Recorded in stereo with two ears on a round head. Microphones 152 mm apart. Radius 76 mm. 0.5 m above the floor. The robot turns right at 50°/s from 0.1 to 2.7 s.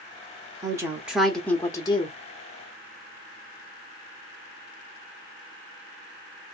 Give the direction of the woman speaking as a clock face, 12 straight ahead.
1 o'clock.